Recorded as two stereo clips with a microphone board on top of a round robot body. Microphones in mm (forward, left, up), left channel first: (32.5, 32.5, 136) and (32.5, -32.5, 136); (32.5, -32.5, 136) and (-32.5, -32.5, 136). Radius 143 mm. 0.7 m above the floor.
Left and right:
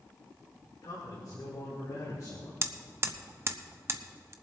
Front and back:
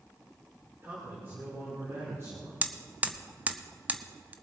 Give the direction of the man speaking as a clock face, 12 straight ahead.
8 o'clock.